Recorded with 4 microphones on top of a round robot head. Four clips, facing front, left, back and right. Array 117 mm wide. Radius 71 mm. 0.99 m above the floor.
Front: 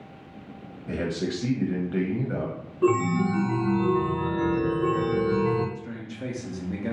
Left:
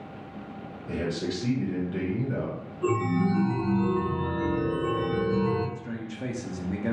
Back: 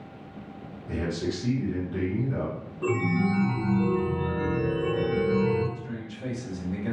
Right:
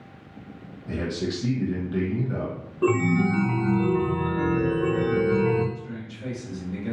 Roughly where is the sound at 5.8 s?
Ahead left.